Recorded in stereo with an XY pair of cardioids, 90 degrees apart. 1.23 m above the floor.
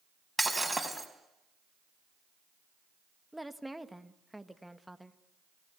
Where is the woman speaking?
Straight ahead, 1.5 m.